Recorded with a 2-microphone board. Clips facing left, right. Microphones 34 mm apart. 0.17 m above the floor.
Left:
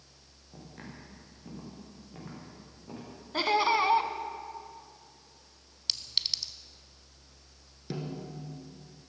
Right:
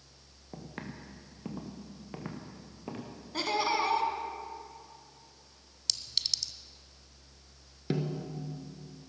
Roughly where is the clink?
Left.